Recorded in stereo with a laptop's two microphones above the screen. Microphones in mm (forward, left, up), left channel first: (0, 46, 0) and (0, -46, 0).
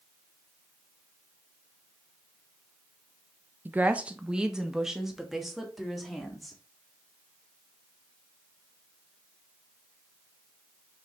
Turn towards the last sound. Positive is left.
turn(degrees=0)  # may be behind; listen again after turning